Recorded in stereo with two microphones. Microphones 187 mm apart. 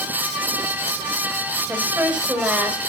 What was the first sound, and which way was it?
A woman speaking, 5° right (ahead or behind).